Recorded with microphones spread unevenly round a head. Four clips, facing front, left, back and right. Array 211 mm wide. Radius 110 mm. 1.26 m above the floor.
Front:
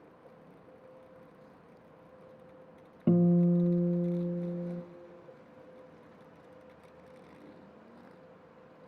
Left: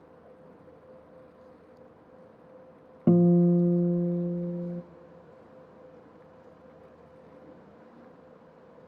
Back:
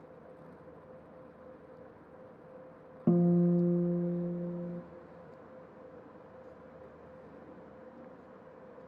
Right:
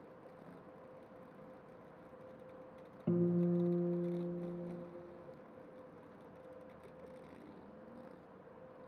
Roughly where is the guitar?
Left.